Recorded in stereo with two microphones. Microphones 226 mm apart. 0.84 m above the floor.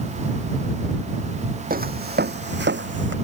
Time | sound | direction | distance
1.7 | footsteps | 40° right (ahead or behind) | ?